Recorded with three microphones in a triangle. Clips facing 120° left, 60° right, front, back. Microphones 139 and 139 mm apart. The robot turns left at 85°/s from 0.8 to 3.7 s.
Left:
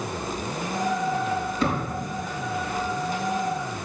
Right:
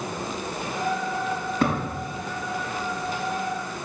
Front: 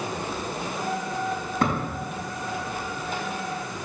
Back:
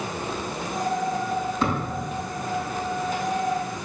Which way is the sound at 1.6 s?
30° right.